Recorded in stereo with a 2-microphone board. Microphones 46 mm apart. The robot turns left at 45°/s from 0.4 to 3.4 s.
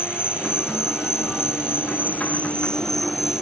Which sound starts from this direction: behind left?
An insect, at 0.0 s.